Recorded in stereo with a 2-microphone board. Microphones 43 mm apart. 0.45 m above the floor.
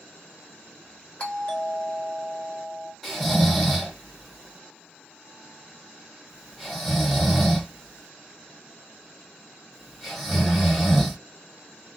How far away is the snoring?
About 1.5 m.